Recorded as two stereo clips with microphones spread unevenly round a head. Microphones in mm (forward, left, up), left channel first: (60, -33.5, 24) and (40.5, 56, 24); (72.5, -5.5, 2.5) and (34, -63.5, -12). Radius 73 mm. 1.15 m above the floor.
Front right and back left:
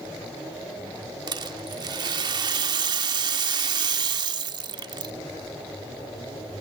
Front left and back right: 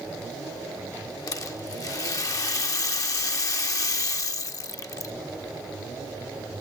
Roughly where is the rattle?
Left.